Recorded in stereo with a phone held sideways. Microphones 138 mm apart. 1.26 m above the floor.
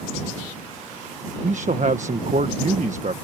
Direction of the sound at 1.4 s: 65° right (ahead or behind).